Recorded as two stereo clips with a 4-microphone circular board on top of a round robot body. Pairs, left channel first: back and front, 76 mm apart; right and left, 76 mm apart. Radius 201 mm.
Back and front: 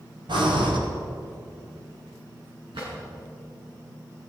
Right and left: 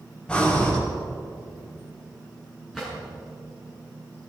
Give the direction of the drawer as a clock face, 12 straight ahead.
12 o'clock.